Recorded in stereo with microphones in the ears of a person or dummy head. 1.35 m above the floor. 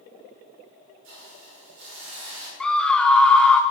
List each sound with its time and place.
1.0 s a hiss: 65° right (ahead or behind), 3.5 m
2.6 s a scream: 10° left (ahead or behind), 0.7 m